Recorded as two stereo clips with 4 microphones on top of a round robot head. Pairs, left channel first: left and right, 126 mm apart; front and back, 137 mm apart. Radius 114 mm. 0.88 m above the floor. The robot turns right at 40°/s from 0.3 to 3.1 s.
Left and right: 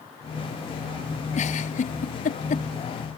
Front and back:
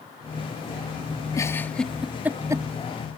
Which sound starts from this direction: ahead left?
A giggle, at 1.3 s.